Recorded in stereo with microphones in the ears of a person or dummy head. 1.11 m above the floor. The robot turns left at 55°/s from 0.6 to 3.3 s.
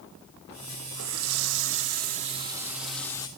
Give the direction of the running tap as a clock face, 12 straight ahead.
2 o'clock.